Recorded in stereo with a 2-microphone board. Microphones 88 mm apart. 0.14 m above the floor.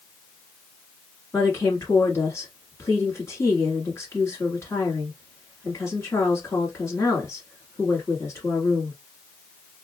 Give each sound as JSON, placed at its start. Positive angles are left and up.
{"t": 1.3, "sound": "a woman speaking", "side_deg": 35, "distance_m": 1.5}